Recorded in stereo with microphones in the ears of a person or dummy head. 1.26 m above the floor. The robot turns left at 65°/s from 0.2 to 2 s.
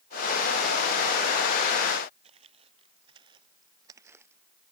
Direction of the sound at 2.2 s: 35° right (ahead or behind).